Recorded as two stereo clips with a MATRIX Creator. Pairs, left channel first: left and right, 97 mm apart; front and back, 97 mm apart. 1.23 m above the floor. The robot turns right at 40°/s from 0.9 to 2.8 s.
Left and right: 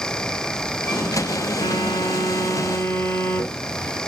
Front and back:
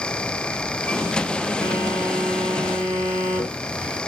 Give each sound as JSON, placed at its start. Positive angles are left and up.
{"t": 1.6, "sound": "a phone buzzing", "azimuth_deg": 70, "distance_m": 2.0}